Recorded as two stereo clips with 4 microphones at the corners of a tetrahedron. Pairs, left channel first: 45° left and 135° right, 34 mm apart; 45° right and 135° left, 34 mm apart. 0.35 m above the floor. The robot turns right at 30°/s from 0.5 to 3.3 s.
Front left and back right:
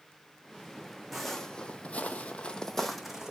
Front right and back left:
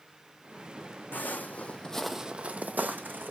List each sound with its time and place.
1.1 s footsteps: 45° right, 0.9 m; by 3.3 s 155° left, 1.0 m